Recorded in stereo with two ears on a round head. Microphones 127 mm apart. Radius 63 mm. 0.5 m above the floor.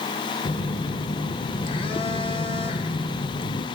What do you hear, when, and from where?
0.5 s a phone buzzing: 40° left (ahead or behind), 0.9 m